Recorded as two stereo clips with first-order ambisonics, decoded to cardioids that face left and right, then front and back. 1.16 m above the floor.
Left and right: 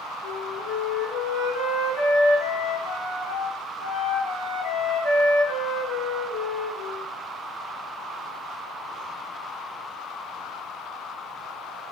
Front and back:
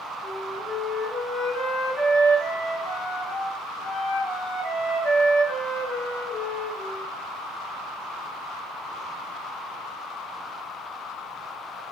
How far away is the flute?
About 1.0 m.